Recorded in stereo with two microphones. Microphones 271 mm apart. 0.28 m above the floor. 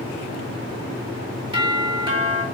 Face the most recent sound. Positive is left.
turn(degrees=-20)  # may be behind; listen again after turning